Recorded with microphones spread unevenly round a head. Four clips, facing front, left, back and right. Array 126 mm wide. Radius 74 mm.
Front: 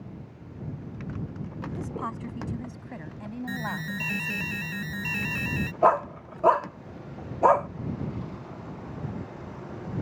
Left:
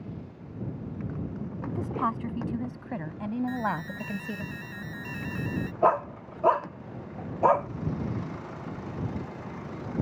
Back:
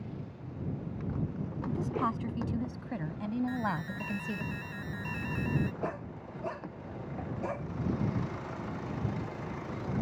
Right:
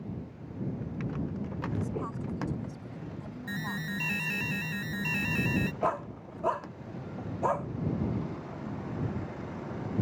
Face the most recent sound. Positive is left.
turn(degrees=15)